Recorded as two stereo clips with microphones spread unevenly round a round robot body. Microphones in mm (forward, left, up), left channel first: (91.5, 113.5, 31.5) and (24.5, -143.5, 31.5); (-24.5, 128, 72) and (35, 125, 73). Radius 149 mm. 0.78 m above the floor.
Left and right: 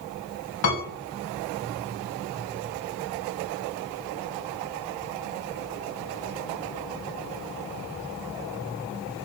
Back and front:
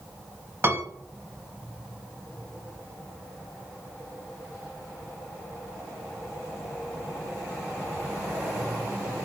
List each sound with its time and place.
0.6 s a piano: 50° left, 1.4 m